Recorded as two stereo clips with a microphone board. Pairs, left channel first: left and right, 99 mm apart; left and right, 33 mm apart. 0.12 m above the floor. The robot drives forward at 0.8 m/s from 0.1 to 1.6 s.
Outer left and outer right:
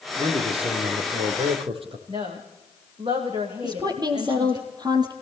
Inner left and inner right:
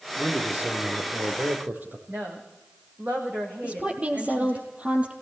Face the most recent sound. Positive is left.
turn(degrees=-45)  # may be behind; listen again after turning